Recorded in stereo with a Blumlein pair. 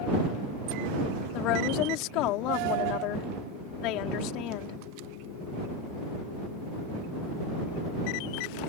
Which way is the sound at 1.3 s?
40° left.